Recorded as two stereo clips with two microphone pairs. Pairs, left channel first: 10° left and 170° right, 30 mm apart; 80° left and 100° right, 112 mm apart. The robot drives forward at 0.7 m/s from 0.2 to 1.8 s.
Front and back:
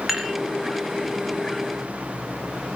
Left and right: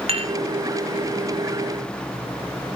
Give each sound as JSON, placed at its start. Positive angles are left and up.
{"t": 0.1, "sound": "dishes clattering", "azimuth_deg": -90, "distance_m": 2.5}